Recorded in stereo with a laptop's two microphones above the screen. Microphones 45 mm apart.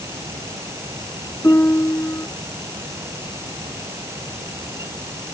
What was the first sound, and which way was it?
A fan, 85° right.